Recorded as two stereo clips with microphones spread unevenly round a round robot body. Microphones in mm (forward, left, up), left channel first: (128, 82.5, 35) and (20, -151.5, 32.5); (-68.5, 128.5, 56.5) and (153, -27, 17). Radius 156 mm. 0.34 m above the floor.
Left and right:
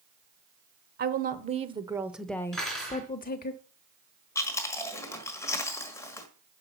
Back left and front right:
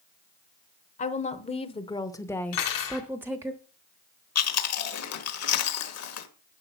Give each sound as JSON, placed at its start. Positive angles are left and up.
{"t": 1.0, "sound": "a woman speaking", "azimuth_deg": -150, "distance_m": 1.1}
{"t": 2.5, "sound": "cutlery clinking", "azimuth_deg": 155, "distance_m": 3.0}
{"t": 4.3, "sound": "chewing", "azimuth_deg": 145, "distance_m": 1.4}